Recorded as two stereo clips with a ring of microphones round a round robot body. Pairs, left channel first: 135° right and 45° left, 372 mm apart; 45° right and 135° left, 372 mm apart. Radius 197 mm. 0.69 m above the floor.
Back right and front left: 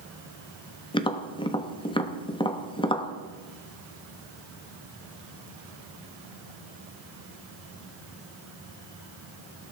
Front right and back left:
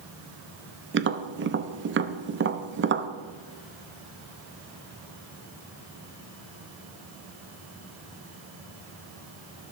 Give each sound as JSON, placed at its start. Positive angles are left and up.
{"t": 0.9, "sound": "tapping", "azimuth_deg": 160, "distance_m": 1.1}